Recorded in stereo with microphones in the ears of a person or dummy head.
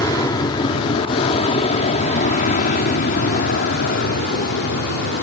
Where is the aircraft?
20° left (ahead or behind); by 5.2 s 55° left (ahead or behind).